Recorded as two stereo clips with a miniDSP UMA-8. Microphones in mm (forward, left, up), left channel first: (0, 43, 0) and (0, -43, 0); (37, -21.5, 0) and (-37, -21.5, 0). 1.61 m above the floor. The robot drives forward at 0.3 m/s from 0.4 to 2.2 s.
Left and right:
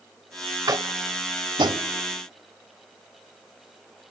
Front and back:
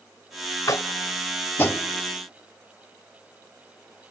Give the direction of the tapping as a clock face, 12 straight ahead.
2 o'clock.